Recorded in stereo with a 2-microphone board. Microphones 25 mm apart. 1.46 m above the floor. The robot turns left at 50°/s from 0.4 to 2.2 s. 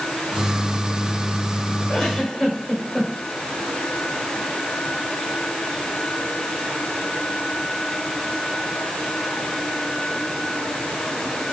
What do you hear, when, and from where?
1.9 s a giggle: 45° left (ahead or behind), 5.5 m; by 3.1 s 25° left (ahead or behind), 5.5 m